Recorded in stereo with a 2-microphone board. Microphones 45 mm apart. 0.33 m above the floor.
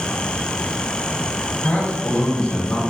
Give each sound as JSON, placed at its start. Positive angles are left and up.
{"t": 1.6, "sound": "a man speaking", "side_deg": 40, "distance_m": 1.6}